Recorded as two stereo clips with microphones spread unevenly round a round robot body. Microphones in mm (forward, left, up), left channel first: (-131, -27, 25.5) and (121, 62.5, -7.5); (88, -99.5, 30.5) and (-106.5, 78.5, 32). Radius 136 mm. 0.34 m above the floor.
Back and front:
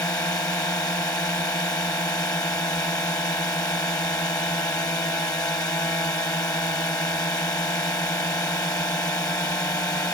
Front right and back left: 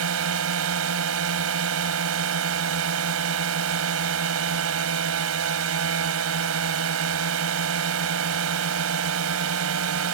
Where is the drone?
120° left.